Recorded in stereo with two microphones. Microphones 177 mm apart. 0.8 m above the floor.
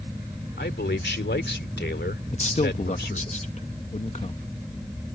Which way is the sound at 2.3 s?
40° left (ahead or behind).